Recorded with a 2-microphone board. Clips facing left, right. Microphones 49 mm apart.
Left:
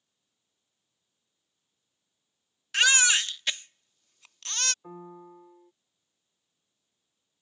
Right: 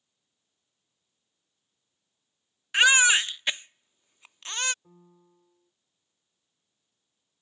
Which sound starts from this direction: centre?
A baby crying, at 2.7 s.